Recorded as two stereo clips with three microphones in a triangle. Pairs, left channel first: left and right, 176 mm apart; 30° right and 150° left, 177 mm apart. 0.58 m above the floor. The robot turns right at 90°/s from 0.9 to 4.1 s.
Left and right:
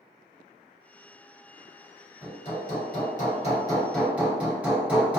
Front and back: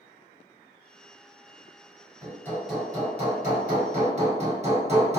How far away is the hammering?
About 1.3 m.